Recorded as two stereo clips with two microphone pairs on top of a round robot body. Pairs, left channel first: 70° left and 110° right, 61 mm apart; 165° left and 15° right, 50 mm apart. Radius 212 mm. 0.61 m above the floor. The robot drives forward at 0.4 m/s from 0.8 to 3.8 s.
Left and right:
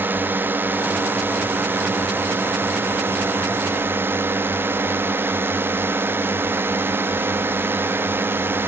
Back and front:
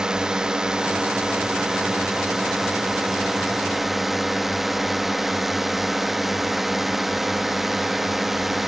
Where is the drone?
90° right; by 8.7 s 105° right.